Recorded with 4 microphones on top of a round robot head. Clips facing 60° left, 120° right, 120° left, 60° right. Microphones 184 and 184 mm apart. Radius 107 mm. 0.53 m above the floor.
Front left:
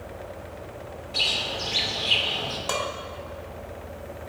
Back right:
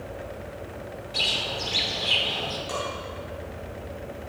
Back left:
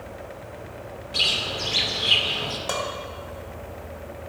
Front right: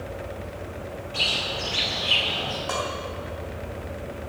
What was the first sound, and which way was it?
A bird, 150° left.